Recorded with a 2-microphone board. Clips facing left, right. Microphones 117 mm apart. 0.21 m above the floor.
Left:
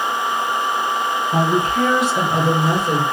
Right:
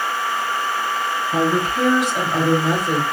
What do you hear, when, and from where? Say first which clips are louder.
1.3 s a woman speaking: left 1 dB; 55° left (ahead or behind), 1.9 m; by 3.0 s 60° left (ahead or behind), 2.5 m